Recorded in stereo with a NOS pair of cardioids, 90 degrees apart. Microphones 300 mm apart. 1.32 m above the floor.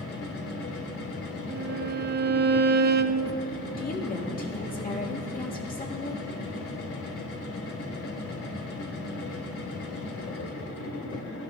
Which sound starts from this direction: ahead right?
A violin, at 1.5 s.